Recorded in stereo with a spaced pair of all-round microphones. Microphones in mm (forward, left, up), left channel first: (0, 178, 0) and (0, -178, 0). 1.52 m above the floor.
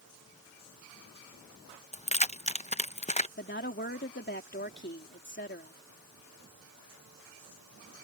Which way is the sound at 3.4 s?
30° left (ahead or behind).